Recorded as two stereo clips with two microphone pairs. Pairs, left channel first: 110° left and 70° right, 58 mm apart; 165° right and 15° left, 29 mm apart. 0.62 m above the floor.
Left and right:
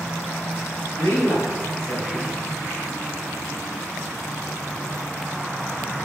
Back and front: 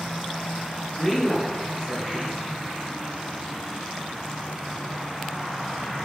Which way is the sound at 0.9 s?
120° left.